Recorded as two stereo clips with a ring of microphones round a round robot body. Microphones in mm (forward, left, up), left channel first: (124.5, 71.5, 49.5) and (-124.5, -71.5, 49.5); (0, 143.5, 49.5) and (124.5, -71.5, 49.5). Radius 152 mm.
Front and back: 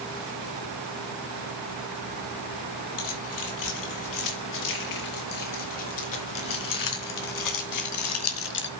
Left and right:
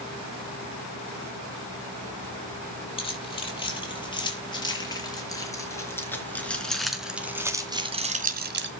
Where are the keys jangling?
50° left, 7.5 m; by 8.7 s 20° right, 1.7 m.